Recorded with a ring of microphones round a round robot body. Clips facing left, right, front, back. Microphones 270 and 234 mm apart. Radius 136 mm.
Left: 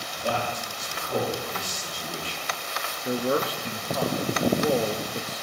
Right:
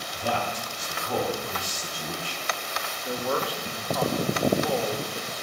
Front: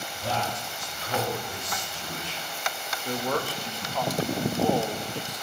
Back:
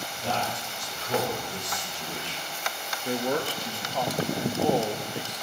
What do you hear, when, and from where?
0.1 s a man speaking: 120° right, 6.5 m
3.0 s a man speaking: 120° left, 1.0 m